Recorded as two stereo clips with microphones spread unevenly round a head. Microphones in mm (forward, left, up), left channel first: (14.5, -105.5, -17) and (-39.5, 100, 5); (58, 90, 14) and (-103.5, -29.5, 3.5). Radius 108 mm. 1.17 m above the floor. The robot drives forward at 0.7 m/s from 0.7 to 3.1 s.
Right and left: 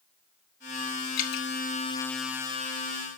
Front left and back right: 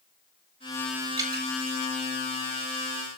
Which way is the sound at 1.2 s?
70° right.